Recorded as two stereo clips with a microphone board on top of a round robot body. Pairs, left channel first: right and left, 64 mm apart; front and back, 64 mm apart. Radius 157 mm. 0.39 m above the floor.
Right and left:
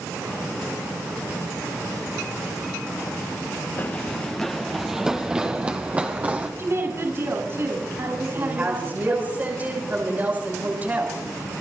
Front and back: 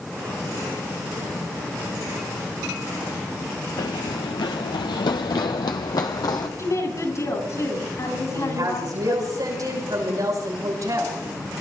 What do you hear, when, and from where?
3.8 s running footsteps: 30° right, 0.7 m; by 6.5 s 25° left, 1.8 m
6.6 s a woman speaking: 40° left, 7.5 m
8.3 s a woman speaking: 155° left, 6.5 m